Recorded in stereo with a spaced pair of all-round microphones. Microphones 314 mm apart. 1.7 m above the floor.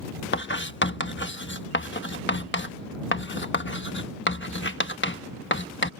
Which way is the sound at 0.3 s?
35° left (ahead or behind).